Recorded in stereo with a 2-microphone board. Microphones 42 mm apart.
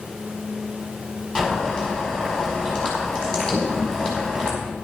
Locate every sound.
1.4 s boiling: 20° left (ahead or behind), 5 m
3.5 s a toilet flushing: centre (ahead or behind), 1.6 m